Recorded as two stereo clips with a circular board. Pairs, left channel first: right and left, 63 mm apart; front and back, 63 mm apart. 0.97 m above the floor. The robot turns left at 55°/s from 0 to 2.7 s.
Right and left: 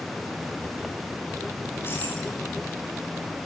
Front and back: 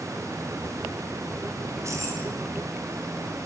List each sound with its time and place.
1.6 s keys jangling: 130° right, 6 m; by 2.4 s 170° right, 6 m